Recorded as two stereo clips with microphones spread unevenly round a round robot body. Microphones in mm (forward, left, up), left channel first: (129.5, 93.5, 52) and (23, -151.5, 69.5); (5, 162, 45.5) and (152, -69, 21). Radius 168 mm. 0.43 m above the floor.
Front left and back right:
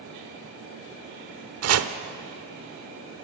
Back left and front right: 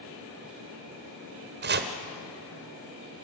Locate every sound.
1.6 s chopping: 100° right, 1.2 m